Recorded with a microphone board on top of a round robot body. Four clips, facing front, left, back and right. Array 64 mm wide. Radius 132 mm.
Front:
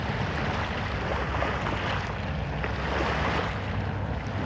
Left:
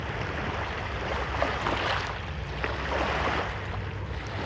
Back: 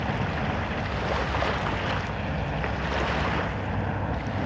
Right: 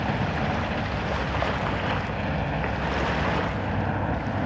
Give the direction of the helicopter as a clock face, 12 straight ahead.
3 o'clock.